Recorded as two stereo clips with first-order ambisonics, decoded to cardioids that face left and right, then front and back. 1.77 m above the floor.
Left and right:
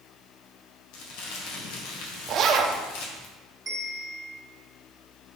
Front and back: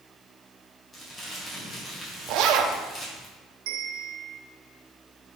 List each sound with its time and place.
0.9 s crumpling: 75° left, 1.6 m
2.3 s a zipper: 145° right, 0.6 m
3.7 s a bell: 175° right, 1.3 m